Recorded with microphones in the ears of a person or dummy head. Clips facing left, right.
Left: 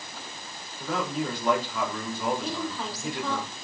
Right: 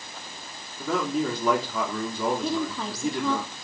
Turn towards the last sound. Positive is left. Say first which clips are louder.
# right 4 dB
turn(degrees=-75)  # may be behind; listen again after turning